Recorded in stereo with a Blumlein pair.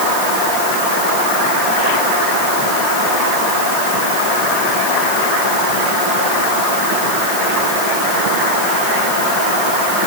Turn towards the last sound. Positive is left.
No sound to turn to.